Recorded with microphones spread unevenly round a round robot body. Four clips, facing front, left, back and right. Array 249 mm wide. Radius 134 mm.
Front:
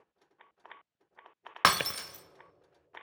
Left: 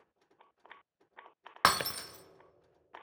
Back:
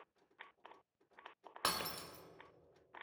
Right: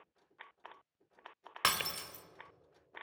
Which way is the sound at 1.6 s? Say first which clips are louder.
Left 7 dB, front 13 dB; 15° left.